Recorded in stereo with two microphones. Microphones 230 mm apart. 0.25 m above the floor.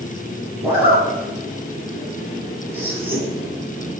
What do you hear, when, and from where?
0.6 s a zipper: 10° right (ahead or behind), 1.8 m